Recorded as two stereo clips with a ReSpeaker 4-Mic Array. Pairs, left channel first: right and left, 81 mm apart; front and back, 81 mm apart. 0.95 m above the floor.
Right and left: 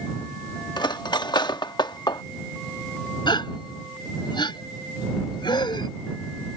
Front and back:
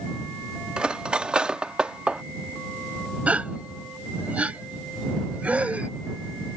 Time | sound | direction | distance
0.8 | cutlery clinking | 100° right | ?
3.3 | a gasp | 105° right | ?